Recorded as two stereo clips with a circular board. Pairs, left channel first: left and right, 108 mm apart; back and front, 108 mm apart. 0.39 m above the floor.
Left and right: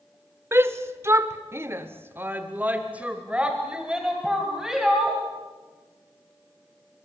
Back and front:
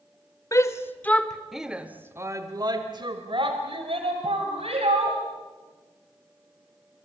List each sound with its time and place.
0.5 s a shout: 140° right, 1.4 m; by 5.2 s 5° right, 3 m